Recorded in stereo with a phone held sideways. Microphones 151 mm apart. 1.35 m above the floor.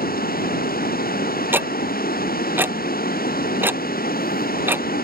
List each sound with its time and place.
0.0 s running water: 85° left
1.5 s ticking: 15° right (ahead or behind)